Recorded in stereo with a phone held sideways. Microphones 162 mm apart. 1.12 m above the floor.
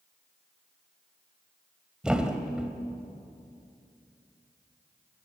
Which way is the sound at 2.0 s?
5° right (ahead or behind).